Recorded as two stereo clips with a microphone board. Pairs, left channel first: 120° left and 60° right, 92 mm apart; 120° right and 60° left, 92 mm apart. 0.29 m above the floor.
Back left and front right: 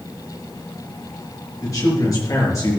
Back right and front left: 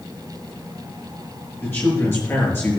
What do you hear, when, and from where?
1.6 s a man speaking: 175° left, 6.5 m